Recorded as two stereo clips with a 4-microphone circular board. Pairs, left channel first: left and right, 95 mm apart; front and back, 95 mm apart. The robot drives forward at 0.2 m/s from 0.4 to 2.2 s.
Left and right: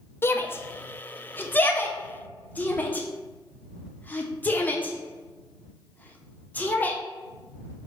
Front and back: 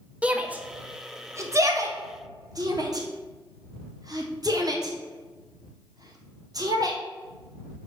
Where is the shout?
120° left, 0.5 m; by 7.0 s 155° left, 0.7 m.